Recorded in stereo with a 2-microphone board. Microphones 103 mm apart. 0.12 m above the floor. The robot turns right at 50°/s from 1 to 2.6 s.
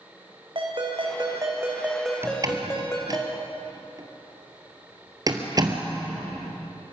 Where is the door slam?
25° right (ahead or behind), 2.0 m; by 5.9 s 40° right (ahead or behind), 2.0 m.